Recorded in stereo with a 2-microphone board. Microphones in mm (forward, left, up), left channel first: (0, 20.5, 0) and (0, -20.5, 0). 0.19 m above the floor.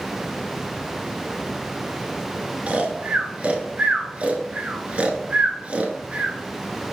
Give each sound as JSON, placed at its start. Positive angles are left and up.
{"t": 2.7, "sound": "snoring", "side_deg": -35, "distance_m": 0.6}